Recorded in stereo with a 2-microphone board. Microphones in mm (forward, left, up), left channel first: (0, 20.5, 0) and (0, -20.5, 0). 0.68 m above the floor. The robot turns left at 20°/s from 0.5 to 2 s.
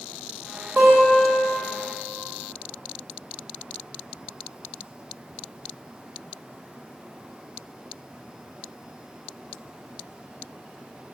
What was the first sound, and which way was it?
A guitar, 55° right (ahead or behind).